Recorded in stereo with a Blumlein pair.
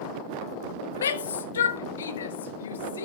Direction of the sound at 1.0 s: 65° left.